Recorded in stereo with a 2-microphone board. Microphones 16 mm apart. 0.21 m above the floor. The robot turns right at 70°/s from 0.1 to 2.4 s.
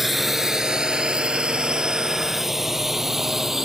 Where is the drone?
10° right (ahead or behind); by 3.7 s 20° right (ahead or behind).